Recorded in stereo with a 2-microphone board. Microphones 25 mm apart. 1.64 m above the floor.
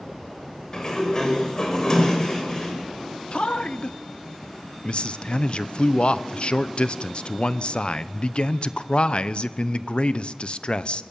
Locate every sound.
0.7 s a sliding door: 30° left (ahead or behind), 5.5 m
3.3 s a man speaking: 50° left (ahead or behind), 0.8 m